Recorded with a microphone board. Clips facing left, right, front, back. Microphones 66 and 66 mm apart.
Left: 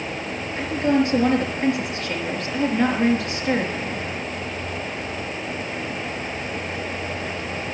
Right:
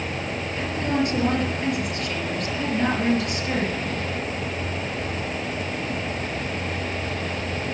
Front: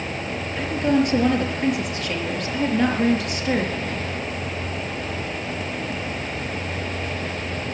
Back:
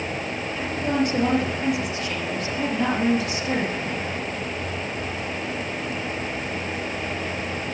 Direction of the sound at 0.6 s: 30° left.